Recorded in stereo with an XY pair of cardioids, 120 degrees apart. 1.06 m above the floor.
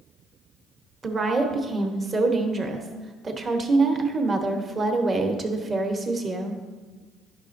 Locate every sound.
1.0 s a woman speaking: 35° right, 1.0 m